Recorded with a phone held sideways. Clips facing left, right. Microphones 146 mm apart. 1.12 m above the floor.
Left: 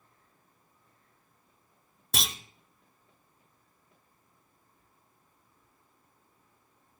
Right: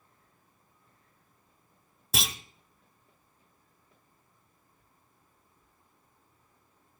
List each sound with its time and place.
2.1 s a clunk: 5° right (ahead or behind), 0.7 m